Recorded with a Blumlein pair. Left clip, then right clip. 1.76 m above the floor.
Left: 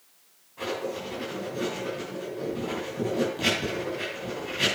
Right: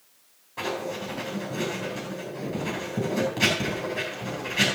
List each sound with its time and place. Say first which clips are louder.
0.6 s writing: right 1 dB; 30° right, 9.5 m